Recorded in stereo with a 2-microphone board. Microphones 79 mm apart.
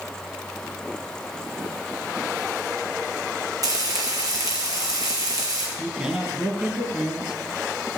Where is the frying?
50° right (ahead or behind), 3 m.